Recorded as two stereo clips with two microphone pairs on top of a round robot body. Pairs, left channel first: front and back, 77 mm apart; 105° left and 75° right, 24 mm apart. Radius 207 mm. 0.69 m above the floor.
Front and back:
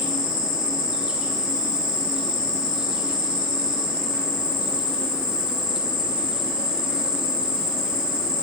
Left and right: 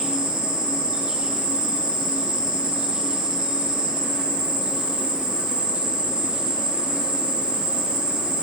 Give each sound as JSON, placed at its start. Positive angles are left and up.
{"t": 0.0, "sound": "an insect", "azimuth_deg": -100, "distance_m": 1.2}